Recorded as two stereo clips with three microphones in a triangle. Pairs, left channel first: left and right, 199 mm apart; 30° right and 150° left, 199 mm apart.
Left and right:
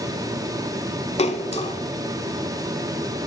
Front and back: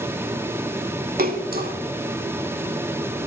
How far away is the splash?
About 0.7 m.